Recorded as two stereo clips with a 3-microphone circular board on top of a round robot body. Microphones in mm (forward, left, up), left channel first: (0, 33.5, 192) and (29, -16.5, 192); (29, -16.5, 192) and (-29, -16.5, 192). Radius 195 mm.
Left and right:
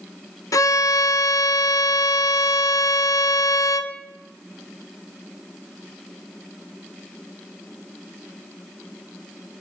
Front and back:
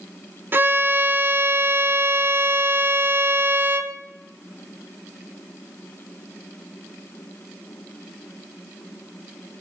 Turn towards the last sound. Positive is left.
turn(degrees=130)